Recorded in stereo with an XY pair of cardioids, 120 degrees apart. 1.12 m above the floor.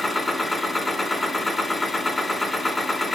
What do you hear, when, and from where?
0.0 s a machine running: 15° left, 1.8 m